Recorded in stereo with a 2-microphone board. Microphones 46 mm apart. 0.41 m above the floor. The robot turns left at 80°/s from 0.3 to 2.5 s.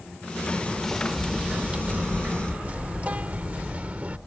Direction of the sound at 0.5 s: 50° left.